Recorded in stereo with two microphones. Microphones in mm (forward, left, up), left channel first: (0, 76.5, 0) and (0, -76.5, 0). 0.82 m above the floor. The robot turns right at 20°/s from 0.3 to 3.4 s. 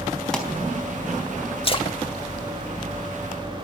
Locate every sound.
0.3 s a pop: 5° left (ahead or behind), 4 m
1.6 s a splash: 35° left (ahead or behind), 1.7 m; by 2.0 s 40° left (ahead or behind), 1.7 m